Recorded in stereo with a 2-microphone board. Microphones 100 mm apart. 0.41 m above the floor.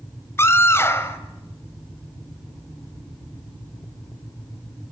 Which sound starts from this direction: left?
A scream, at 0.4 s.